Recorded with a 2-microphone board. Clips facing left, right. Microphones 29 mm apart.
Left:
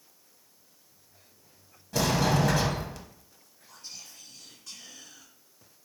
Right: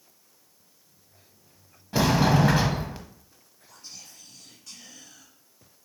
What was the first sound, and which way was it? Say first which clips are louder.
A sliding door: right 4 dB; 25° right (ahead or behind).